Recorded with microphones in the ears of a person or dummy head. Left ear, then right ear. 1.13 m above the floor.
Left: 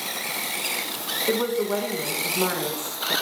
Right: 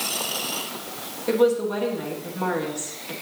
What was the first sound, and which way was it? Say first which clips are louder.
A woman speaking: right 5 dB; 20° left (ahead or behind).